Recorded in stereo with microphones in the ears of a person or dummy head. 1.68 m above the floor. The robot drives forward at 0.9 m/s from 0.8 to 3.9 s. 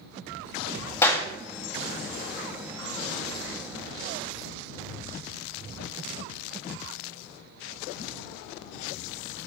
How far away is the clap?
About 2.0 m.